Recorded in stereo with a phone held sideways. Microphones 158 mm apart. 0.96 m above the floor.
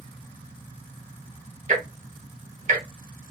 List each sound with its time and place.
1.7 s ticking: 50° right (ahead or behind), 1.0 m